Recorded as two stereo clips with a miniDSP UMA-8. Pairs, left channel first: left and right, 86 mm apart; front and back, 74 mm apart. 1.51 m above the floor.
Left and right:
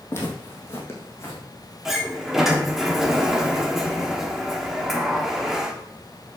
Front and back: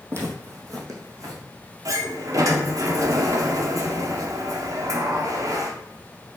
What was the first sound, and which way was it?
Footsteps, 140° left.